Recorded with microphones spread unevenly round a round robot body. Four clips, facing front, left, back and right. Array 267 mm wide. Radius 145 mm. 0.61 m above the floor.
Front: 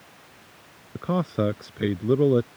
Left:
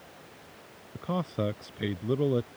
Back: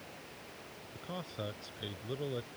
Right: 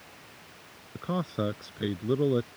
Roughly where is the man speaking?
Ahead.